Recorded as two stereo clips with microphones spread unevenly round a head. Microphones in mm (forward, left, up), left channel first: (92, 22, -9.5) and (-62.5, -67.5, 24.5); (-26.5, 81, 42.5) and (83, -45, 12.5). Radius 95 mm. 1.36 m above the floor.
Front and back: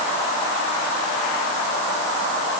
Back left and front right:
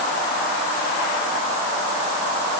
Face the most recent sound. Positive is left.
No sound to turn to.